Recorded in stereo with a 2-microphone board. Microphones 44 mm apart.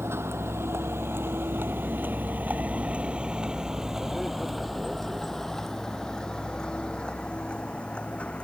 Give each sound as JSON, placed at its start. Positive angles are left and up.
{"t": 0.0, "sound": "a vehicle", "side_deg": -80}